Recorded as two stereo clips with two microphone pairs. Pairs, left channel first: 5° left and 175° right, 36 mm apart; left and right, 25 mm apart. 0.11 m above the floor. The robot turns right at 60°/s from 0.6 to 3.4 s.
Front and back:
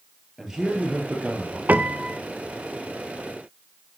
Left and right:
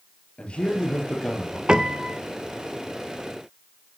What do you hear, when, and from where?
0.4 s a man speaking: 120° left, 3 m; by 1.6 s 175° left, 3 m
1.7 s a piano: 140° right, 0.5 m; by 2.2 s 110° right, 0.5 m